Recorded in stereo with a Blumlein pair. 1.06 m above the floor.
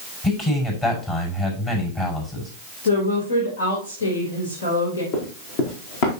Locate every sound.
0.2 s a man speaking: 25° left, 6 m
2.8 s a woman speaking: 65° left, 3.5 m
5.1 s running footsteps: 45° left, 4 m